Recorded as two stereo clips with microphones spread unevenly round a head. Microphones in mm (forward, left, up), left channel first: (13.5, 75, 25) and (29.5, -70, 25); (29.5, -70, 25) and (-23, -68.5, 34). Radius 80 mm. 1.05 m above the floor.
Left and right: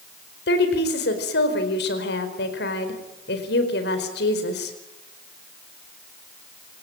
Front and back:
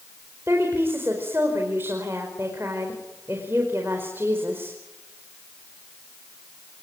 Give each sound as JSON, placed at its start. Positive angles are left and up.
{"t": 0.5, "sound": "a woman speaking", "azimuth_deg": 110, "distance_m": 4.5}